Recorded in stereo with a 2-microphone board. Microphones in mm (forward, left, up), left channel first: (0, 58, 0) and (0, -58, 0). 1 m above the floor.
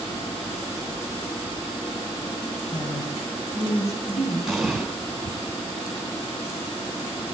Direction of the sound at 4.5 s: Centre (ahead or behind).